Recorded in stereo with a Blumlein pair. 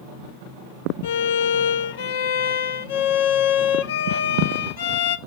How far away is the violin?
About 0.8 m.